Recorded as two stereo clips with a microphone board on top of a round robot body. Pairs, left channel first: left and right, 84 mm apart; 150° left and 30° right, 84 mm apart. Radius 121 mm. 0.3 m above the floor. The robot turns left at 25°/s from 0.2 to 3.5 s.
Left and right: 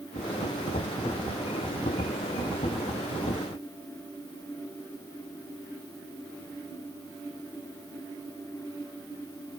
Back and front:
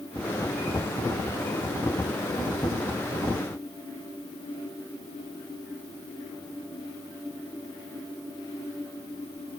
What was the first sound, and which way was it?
Only background noise.